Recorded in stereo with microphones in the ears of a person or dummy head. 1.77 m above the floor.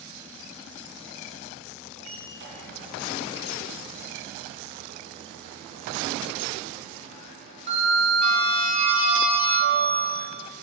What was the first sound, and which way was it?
A sliding door, 40° right (ahead or behind).